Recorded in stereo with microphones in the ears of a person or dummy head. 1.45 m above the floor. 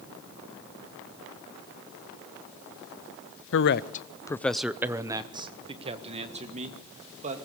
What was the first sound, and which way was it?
A man speaking, 60° left (ahead or behind).